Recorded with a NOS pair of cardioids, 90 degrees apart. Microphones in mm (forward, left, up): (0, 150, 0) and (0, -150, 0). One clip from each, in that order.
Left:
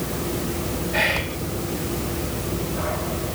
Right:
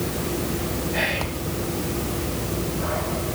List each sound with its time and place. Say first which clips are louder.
0.9 s whispering: left 4 dB; 35° left, 4 m